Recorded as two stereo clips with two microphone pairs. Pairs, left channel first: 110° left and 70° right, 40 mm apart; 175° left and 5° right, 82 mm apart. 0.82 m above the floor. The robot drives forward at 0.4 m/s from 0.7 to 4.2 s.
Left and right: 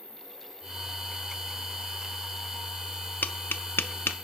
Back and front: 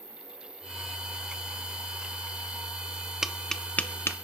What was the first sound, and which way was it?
An insect, 15° right.